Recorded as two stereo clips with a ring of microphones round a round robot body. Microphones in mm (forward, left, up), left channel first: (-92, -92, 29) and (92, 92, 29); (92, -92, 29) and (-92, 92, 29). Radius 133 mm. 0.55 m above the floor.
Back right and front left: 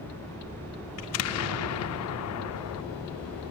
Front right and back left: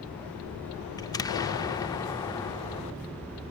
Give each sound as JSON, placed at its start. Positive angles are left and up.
{"t": 1.0, "sound": "an explosion", "azimuth_deg": -120}